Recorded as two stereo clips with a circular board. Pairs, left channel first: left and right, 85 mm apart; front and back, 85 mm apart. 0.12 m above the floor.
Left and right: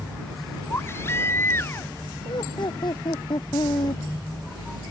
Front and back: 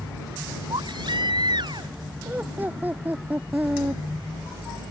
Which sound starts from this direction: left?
Laughter, at 2.2 s.